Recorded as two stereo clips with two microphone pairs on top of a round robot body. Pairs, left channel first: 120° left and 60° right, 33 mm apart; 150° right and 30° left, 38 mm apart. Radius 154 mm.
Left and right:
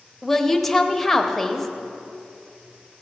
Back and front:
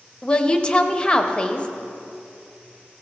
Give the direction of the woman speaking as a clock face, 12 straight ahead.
6 o'clock.